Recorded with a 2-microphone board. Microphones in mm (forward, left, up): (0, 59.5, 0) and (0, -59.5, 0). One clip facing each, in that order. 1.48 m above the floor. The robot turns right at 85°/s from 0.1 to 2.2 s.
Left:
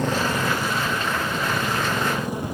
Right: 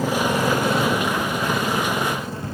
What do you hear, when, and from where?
0.0 s a motorcycle: 5° right (ahead or behind); by 2.5 s 15° left (ahead or behind)